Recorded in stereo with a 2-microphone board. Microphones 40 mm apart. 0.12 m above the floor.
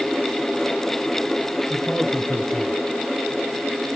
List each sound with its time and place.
1.7 s a man speaking: 20° left (ahead or behind), 1.6 m; by 2.8 s 25° left (ahead or behind), 1.6 m